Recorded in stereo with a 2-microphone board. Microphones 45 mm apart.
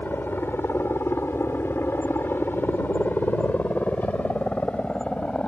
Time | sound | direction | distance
0.0 | a helicopter | 50° left (ahead or behind) | ?